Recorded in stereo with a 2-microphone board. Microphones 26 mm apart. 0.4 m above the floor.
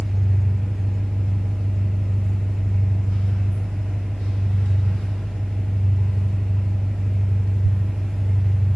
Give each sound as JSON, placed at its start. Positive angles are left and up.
{"t": 0.0, "sound": "an engine running", "side_deg": 80, "distance_m": 3.0}